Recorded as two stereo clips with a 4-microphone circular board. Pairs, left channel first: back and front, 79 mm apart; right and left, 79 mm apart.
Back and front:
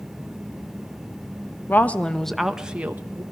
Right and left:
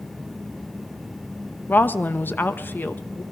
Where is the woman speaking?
140° right, 1.0 m; by 3.2 s 35° right, 1.0 m.